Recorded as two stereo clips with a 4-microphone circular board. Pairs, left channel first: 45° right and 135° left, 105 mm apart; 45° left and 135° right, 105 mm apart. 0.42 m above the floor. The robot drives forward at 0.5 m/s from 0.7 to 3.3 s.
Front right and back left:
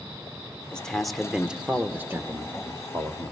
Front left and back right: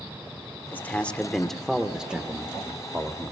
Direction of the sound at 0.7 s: 20° left.